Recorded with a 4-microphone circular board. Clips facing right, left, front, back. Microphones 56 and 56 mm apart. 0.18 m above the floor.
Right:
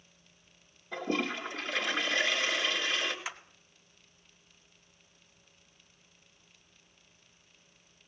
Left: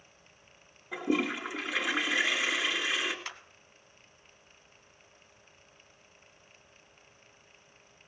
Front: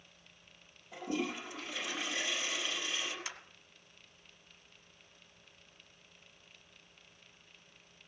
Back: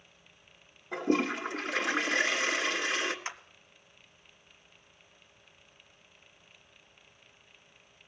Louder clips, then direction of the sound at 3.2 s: Right 2 dB, back 5 dB; 160° right.